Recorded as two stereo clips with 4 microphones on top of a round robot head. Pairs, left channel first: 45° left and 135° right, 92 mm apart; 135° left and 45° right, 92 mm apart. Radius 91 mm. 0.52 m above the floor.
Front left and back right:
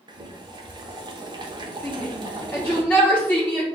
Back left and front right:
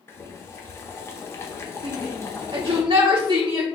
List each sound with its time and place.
0.1 s boiling: 170° right, 1.1 m
1.8 s a shout: 25° right, 1.1 m